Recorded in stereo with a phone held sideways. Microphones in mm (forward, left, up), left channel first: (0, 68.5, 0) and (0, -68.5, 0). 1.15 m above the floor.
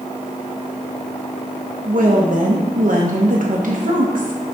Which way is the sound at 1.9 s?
75° right (ahead or behind).